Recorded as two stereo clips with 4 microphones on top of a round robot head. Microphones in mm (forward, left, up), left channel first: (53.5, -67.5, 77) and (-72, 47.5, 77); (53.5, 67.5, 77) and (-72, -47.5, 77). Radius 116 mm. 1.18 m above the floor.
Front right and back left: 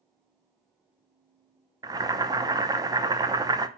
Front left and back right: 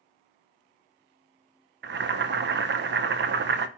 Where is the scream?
No scream in this recording.